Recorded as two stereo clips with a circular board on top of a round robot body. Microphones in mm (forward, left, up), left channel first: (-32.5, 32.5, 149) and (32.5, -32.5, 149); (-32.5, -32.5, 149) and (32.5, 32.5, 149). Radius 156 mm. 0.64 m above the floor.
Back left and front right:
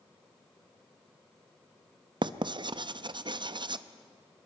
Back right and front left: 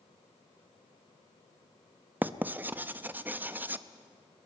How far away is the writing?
About 0.8 m.